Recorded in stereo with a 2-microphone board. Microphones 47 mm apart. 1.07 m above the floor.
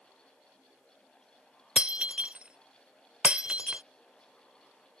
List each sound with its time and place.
1.8 s breaking glass: 25° right (ahead or behind)